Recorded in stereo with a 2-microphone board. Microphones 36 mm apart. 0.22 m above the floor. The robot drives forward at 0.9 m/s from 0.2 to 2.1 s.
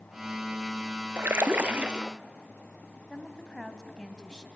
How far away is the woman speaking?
About 1.7 m.